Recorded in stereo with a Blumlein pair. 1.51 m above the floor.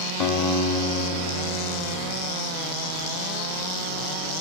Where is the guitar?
35° left, 1.1 m.